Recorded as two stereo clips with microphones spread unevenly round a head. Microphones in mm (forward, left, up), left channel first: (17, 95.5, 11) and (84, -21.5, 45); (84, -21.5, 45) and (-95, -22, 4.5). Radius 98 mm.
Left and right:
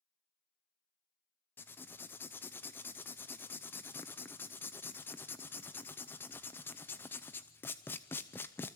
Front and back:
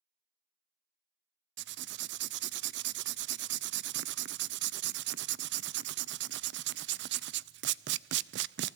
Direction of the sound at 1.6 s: 155° right.